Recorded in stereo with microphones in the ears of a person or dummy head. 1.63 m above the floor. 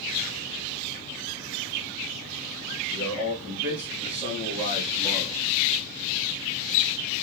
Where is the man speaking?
15° right (ahead or behind), 2.5 m; by 5.4 s 5° right (ahead or behind), 0.9 m.